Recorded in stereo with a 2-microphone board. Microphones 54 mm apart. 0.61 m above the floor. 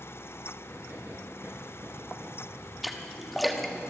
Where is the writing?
50° right (ahead or behind), 7.5 m.